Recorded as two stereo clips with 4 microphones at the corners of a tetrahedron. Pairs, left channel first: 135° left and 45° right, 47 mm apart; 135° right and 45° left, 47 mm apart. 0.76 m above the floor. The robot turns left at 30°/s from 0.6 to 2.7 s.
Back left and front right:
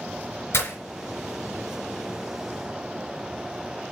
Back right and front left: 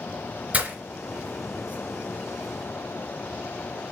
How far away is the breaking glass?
About 2.5 m.